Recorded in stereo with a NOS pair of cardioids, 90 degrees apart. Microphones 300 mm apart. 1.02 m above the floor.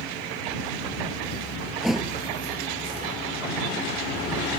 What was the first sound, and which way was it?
A thud, straight ahead.